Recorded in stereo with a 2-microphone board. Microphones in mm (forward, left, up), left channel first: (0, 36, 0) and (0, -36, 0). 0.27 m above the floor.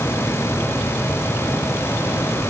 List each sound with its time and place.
Only background noise.